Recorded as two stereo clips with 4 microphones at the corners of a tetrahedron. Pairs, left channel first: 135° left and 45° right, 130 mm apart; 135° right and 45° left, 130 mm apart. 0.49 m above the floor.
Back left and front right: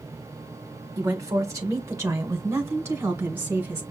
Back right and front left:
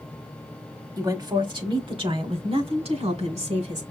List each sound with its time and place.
1.0 s a woman speaking: straight ahead, 1.4 m; by 3.8 s 25° left, 2.5 m